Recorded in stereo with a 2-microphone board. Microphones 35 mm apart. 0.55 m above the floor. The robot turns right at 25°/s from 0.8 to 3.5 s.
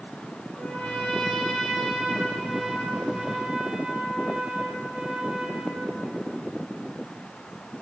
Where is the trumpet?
140° left, 4 m; by 5.9 s 155° right, 4 m.